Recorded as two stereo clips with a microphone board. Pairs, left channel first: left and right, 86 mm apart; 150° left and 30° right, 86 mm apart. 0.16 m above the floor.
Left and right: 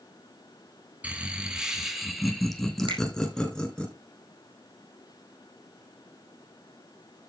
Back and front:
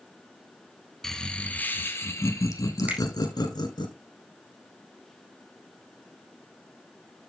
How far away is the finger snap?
About 4.5 m.